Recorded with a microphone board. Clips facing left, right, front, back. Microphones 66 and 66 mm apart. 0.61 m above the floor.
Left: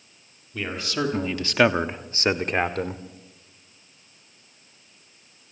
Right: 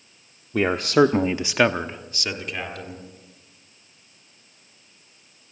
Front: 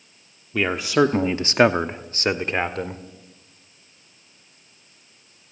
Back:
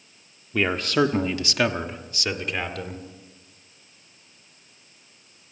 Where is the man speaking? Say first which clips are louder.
Right 11 dB, front 2 dB; 90° right, 1.1 m; by 3.0 s 55° left, 1.7 m.